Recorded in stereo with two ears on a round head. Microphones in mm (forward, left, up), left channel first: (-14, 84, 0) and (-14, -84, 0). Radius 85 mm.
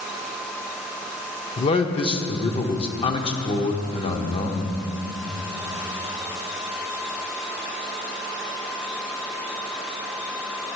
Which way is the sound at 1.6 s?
30° left (ahead or behind).